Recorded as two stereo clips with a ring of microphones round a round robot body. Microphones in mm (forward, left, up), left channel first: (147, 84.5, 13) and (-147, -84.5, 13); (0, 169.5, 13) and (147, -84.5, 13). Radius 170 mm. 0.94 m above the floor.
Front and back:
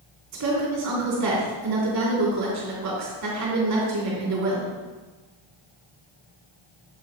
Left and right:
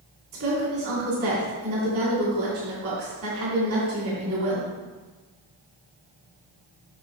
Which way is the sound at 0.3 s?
110° right.